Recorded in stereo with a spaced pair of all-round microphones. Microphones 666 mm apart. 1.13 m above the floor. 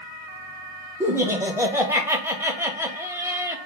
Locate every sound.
1.0 s laughter: 5° right (ahead or behind), 0.8 m